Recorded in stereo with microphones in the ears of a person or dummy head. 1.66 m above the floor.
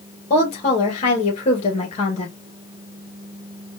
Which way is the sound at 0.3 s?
30° left (ahead or behind).